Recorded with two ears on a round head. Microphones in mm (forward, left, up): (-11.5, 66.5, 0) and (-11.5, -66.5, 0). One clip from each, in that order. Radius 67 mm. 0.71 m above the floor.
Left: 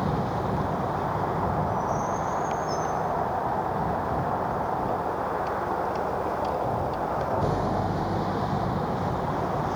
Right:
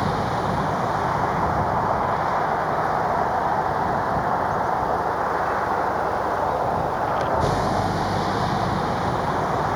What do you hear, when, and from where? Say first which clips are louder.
0.0 s a vehicle: right 5 dB; 60° right (ahead or behind)